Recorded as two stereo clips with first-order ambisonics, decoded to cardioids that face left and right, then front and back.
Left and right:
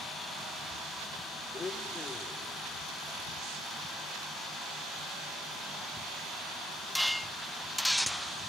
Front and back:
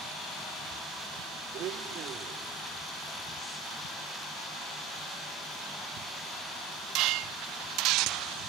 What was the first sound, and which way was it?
A blender, 160° left.